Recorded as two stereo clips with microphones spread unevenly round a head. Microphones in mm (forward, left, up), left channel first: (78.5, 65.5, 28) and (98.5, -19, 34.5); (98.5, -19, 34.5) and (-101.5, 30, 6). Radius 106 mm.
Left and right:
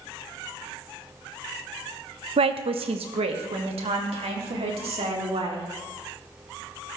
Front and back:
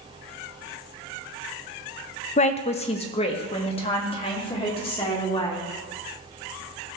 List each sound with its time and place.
2.4 s a woman speaking: 70° right, 0.7 m; by 5.7 s 80° right, 3 m